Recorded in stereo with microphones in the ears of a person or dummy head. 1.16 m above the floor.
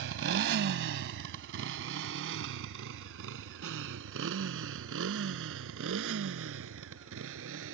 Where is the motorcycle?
65° right (ahead or behind); by 7.8 s 75° right (ahead or behind).